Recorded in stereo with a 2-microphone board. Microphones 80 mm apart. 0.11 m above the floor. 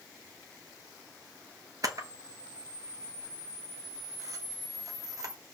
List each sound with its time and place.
1.8 s a camera shutter: 50° right (ahead or behind), 1.2 m